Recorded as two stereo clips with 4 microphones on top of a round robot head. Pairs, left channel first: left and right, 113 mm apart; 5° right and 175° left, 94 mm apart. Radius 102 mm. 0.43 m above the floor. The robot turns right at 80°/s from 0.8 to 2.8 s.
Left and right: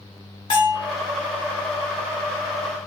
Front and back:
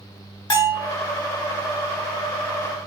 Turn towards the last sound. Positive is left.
turn(degrees=-160)